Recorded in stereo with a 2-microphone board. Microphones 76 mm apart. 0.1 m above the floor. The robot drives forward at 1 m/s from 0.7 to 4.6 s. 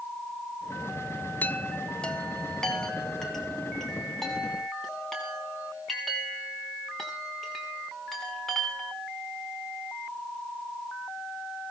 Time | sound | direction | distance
1.4 | a chime | 25° left (ahead or behind) | 0.5 m